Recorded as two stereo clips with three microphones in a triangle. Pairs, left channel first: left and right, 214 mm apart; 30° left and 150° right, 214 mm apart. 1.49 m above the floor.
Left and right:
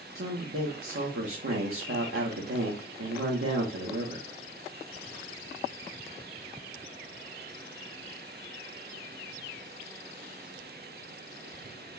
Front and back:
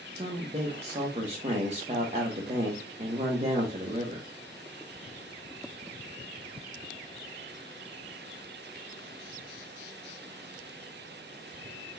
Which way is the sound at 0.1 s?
90° right.